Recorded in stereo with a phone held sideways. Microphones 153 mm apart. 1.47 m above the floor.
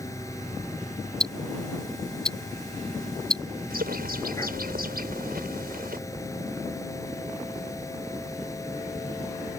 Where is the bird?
90° right.